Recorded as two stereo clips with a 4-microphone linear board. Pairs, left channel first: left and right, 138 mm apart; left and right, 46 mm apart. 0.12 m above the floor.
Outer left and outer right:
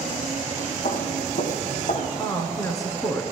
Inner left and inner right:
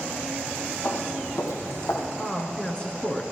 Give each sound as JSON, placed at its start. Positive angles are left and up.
{"t": 0.8, "sound": "footsteps", "side_deg": 75, "distance_m": 2.0}
{"t": 2.2, "sound": "a woman speaking", "side_deg": 25, "distance_m": 1.2}